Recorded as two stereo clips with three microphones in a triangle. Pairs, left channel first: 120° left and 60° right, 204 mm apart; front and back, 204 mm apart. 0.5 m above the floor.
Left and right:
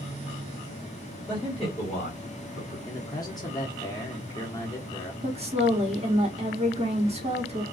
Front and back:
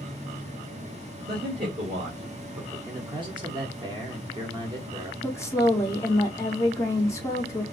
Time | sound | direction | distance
1.3 | a man speaking | 160° right | 1.8 m
2.9 | a man speaking | 160° left | 0.7 m
5.2 | a woman speaking | 60° right | 0.8 m